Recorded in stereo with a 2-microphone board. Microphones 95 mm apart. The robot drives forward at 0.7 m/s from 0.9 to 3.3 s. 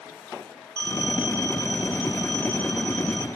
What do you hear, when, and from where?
0.8 s a phone ringing: 45° left (ahead or behind), 1.5 m; by 3.3 s 20° left (ahead or behind), 3 m